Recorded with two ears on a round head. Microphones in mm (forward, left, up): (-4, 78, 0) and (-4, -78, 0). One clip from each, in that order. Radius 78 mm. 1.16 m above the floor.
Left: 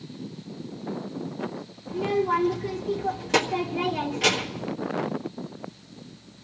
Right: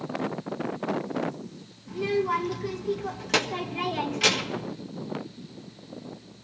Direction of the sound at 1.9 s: 30° right (ahead or behind).